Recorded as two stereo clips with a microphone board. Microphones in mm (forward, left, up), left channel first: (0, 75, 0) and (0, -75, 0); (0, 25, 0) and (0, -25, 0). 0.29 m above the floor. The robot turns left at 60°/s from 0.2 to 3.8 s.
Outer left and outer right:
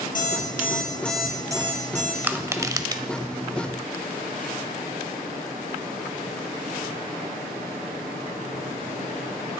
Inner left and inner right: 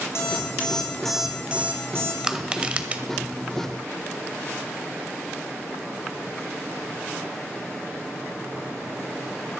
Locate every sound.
0.1 s an alarm clock: 60° left, 3 m; by 2.1 s 60° right, 3 m
2.2 s crushing: 10° right (ahead or behind), 0.8 m; by 3.0 s 30° right (ahead or behind), 0.8 m